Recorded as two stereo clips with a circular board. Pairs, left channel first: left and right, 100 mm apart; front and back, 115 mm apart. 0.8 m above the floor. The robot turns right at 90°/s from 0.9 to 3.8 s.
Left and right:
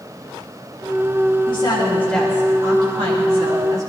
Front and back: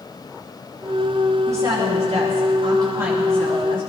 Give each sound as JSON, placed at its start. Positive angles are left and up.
{"t": 1.5, "sound": "a woman speaking", "azimuth_deg": 110, "distance_m": 5.0}